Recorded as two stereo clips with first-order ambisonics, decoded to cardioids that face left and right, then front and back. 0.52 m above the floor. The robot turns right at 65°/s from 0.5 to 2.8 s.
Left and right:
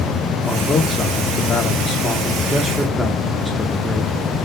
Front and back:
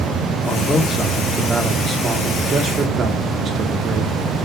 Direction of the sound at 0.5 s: 30° left.